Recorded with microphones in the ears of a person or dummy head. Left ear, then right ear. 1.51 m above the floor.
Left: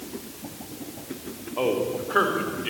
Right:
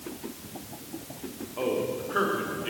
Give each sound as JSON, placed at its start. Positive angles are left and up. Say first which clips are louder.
{"t": 1.6, "sound": "a man speaking", "louder": "left 4 dB", "side_deg": 20, "distance_m": 3.5}